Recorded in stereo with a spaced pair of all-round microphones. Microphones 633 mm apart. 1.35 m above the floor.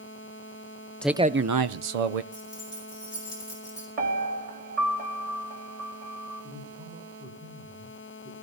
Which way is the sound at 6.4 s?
10° right (ahead or behind).